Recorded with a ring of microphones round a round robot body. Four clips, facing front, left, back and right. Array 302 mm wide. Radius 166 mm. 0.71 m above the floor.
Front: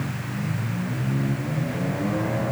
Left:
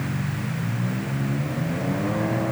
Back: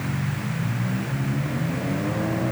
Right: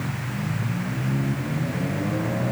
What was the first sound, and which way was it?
Only background noise.